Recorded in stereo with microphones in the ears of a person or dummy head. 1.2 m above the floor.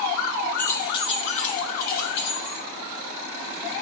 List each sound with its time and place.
0.6 s keys jangling: 10° left (ahead or behind), 0.5 m; by 2.6 s 55° left (ahead or behind), 1.3 m